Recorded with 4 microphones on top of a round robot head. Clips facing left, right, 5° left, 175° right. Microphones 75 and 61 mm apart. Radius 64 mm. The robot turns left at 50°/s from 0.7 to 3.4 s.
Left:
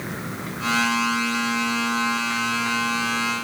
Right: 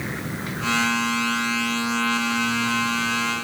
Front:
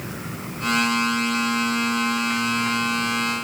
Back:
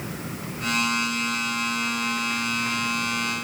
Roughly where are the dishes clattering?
I don't hear dishes clattering.